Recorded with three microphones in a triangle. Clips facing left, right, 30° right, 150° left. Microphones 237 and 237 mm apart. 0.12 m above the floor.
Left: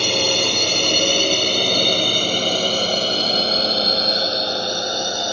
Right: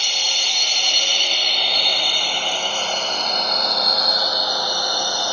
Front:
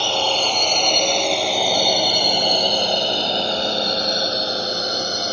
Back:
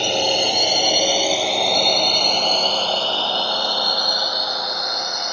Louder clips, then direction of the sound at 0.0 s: Left 15 dB, back 2 dB; 80° left.